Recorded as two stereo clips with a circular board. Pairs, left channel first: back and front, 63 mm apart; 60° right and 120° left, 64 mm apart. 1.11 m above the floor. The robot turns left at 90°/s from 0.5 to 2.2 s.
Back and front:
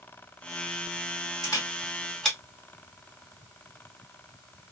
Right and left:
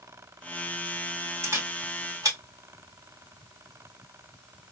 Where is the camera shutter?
165° left, 2 m; by 2.4 s 95° left, 2 m.